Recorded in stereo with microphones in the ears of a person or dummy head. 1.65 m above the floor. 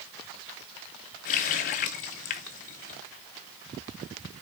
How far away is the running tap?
About 0.7 m.